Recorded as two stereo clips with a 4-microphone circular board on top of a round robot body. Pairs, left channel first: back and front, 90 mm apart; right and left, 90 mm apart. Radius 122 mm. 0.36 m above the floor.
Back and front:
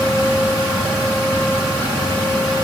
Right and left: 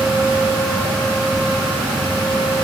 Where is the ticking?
No ticking in this recording.